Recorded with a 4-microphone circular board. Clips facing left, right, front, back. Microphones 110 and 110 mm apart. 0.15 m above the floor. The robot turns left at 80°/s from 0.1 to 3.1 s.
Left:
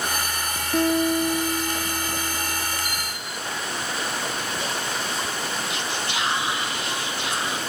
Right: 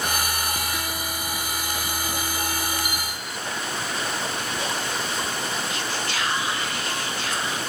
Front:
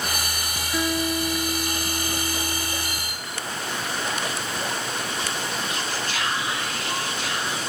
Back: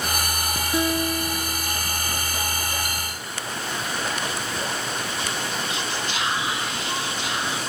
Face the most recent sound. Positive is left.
turn(degrees=135)